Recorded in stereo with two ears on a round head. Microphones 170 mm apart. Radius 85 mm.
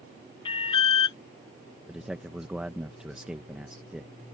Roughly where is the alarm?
Left.